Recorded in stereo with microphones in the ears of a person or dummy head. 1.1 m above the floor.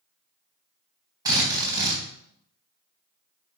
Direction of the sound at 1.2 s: 15° right (ahead or behind).